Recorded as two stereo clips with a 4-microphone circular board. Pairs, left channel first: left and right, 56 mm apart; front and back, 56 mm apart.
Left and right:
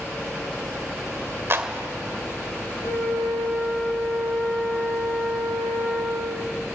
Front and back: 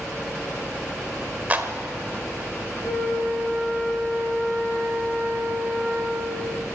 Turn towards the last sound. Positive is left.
turn(degrees=70)